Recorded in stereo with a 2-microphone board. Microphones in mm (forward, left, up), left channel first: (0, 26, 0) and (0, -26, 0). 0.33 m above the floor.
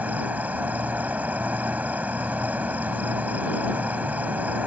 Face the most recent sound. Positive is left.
turn(degrees=-30)  # may be behind; listen again after turning